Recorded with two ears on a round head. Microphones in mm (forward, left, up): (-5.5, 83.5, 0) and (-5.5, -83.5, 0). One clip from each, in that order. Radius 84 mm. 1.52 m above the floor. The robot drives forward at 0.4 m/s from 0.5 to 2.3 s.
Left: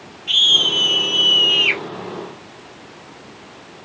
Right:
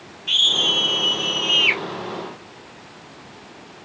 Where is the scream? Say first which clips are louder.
Left 3 dB; 15° right (ahead or behind), 1.7 m; by 1.8 s 20° right (ahead or behind), 1.2 m.